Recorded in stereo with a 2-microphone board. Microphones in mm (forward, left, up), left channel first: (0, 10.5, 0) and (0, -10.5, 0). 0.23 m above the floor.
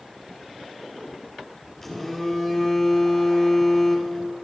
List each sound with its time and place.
1.8 s a phone buzzing: 10° left (ahead or behind), 3 m